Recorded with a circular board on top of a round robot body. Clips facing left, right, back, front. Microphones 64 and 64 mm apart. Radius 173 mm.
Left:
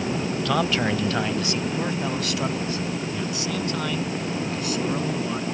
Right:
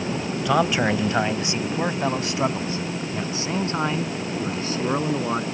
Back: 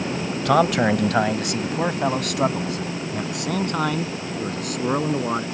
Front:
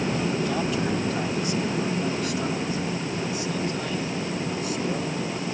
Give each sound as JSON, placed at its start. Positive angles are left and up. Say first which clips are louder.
{"t": 0.5, "sound": "a man speaking", "louder": "right 4 dB, back 8 dB", "azimuth_deg": -165}